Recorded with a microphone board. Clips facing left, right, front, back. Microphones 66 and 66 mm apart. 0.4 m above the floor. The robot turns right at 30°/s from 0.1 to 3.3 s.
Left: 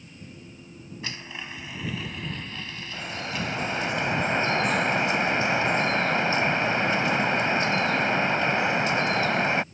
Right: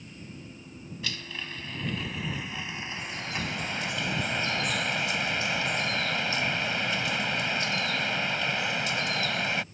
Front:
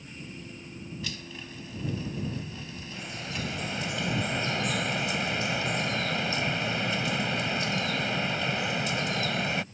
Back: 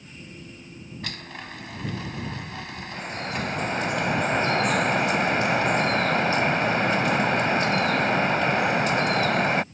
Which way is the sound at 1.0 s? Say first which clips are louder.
Left 1 dB, back 3 dB; 150° left.